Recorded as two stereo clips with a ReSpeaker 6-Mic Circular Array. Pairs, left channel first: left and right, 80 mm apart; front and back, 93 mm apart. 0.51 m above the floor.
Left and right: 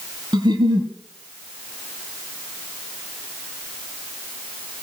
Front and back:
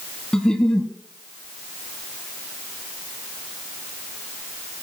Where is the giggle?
80° right, 1.7 m.